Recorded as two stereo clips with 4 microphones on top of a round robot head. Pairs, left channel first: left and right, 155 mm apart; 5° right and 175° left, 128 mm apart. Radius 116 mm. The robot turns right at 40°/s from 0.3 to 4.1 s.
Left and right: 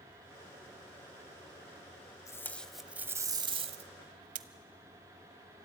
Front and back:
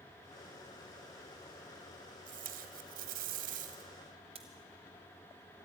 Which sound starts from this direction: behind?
Tape being pulled, at 2.3 s.